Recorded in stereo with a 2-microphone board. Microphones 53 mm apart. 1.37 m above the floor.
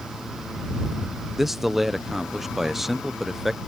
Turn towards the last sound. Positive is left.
turn(degrees=-5)  # may be behind; listen again after turning